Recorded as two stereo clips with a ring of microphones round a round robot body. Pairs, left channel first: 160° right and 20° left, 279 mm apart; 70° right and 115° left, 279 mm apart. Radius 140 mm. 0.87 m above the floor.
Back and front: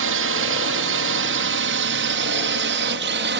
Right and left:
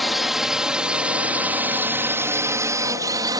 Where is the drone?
25° left; by 3.4 s 40° left.